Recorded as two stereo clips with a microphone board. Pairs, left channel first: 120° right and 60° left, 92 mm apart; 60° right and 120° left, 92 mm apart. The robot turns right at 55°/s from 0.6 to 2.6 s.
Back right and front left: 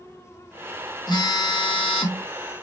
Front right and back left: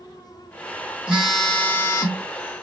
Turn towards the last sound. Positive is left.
turn(degrees=-80)